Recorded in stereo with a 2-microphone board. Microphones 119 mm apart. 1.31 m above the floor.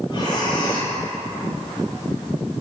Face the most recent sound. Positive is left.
turn(degrees=45)  # may be behind; listen again after turning